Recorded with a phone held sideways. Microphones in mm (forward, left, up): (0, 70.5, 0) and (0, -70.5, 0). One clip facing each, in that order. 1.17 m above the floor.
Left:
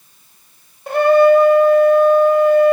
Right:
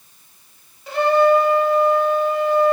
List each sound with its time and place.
0.9 s a trumpet: 55° left (ahead or behind), 1.5 m